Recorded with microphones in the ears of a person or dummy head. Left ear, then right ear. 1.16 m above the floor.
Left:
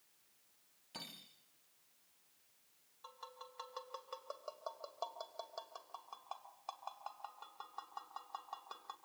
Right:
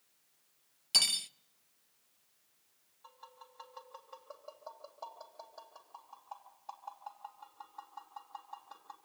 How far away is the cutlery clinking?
About 0.6 m.